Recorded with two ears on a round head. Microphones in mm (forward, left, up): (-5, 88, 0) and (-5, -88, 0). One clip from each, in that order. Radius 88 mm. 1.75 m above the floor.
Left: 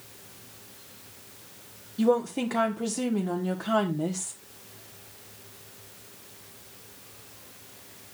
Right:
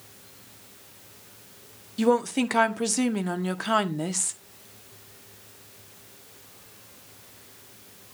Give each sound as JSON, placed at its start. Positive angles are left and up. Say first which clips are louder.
{"t": 2.0, "sound": "a woman speaking", "louder": "right 2 dB", "side_deg": -55, "distance_m": 1.1}